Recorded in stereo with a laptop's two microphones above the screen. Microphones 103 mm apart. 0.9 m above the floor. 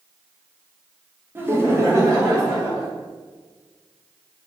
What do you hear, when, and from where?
1.4 s laughter: 20° right (ahead or behind), 0.6 m; by 2.9 s 30° right (ahead or behind), 1.6 m